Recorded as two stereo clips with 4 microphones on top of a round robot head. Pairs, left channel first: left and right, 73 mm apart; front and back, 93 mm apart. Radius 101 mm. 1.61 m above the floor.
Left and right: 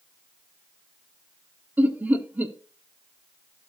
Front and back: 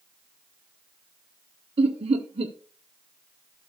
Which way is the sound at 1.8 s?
160° right.